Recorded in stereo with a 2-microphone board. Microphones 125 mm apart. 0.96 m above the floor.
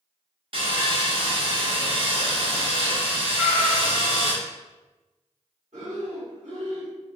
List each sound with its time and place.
0.5 s sawing: 45° right (ahead or behind), 0.8 m
3.3 s a cat meowing: 15° right (ahead or behind), 1.7 m
5.7 s breathing: 75° right (ahead or behind), 1.4 m